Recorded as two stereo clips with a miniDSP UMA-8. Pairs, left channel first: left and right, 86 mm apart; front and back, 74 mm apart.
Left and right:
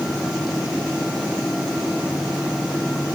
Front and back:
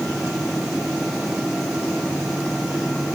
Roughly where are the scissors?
I don't hear scissors.